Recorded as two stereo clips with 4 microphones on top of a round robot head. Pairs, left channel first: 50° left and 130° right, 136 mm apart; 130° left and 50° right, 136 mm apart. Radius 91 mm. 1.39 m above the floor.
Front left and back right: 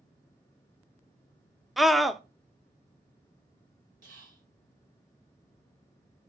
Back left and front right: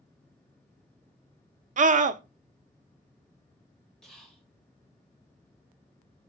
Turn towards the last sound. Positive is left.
turn(degrees=-145)